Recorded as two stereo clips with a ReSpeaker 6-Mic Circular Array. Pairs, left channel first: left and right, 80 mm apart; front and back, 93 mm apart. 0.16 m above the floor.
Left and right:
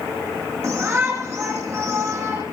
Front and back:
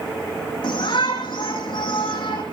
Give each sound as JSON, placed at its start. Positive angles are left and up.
{"t": 0.6, "sound": "a shout", "azimuth_deg": -35, "distance_m": 7.5}